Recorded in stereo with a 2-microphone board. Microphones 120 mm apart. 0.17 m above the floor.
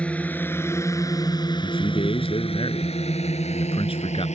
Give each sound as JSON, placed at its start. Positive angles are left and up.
{"t": 0.0, "sound": "a drone", "side_deg": 10}
{"t": 1.6, "sound": "a man speaking", "side_deg": 50}